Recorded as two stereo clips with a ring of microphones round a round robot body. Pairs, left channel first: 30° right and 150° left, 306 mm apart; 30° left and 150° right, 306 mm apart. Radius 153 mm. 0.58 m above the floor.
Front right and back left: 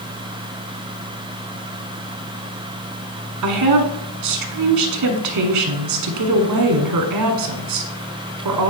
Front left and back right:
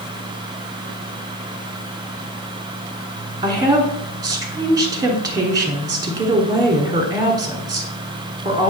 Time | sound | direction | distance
3.4 | a woman speaking | 135° left | 1.2 m